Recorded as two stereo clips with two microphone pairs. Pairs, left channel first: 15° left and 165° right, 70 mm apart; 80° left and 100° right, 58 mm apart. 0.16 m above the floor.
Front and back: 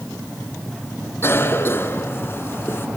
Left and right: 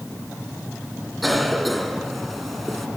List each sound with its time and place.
1.2 s a cough: 15° right, 2 m